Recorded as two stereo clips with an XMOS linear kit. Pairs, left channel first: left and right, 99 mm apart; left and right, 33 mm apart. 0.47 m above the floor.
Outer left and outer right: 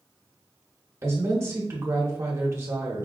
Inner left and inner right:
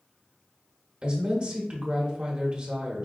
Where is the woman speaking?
30° right (ahead or behind), 0.8 m.